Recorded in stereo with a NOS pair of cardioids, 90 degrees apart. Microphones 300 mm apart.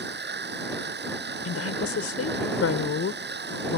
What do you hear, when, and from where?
0.0 s a machine running: 30° right
1.4 s a woman speaking: 50° left